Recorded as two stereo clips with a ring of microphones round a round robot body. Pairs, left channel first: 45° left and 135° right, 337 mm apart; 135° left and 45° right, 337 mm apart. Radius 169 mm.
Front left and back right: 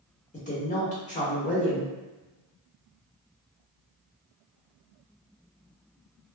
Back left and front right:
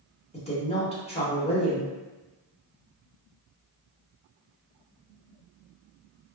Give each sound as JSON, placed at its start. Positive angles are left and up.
{"t": 0.3, "sound": "a woman speaking", "azimuth_deg": 85, "distance_m": 0.9}